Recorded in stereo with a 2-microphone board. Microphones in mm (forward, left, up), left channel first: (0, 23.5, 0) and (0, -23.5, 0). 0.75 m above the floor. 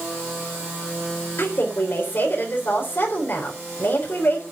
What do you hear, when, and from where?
1.4 s a woman speaking: 50° left (ahead or behind), 3.5 m